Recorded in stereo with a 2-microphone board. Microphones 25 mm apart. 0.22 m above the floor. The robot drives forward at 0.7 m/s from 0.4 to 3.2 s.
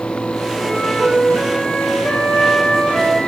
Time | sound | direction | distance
0.6 | a flute | 75° left (ahead or behind) | 8.5 m